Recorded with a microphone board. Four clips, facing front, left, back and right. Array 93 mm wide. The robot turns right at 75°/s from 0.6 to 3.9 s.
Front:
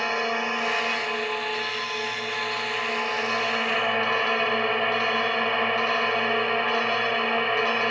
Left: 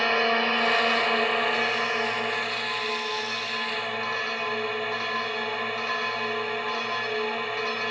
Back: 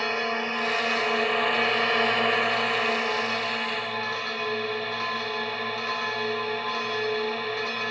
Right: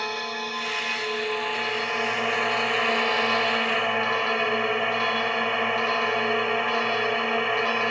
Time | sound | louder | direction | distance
0.0 | a drone | left 7 dB, front 2 dB | 75° left | ?